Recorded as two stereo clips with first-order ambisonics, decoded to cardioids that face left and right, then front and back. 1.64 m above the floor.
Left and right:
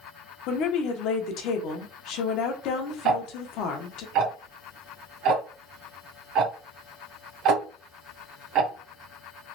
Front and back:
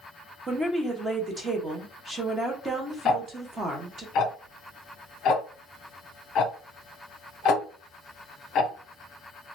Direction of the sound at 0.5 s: 105° left.